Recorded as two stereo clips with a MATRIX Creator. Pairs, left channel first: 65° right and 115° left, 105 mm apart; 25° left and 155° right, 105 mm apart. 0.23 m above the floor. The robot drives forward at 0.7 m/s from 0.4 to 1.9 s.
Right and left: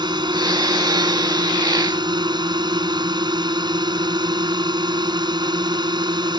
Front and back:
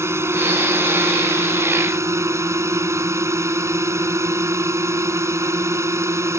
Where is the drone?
145° left.